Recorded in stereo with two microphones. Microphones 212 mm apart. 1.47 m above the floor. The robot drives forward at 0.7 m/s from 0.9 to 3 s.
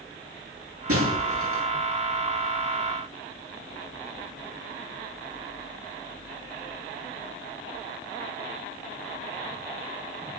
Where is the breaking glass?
80° right, 7.5 m; by 1.7 s 75° right (ahead or behind), 7.5 m.